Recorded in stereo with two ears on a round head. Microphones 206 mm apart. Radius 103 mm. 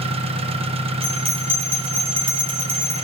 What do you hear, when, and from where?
0.0 s an engine running: 25° right (ahead or behind), 1.0 m
1.0 s a bell: 25° right (ahead or behind), 2 m